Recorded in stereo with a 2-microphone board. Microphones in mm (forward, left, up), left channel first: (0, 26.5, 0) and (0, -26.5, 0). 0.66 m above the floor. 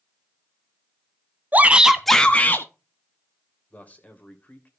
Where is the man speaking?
30° left (ahead or behind), 2.5 m.